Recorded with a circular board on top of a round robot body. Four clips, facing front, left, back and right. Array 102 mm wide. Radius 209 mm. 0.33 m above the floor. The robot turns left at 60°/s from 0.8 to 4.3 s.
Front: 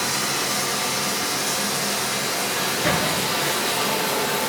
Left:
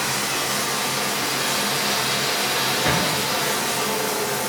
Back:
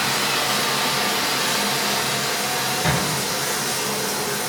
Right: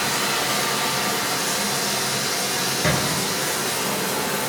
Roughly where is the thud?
Right.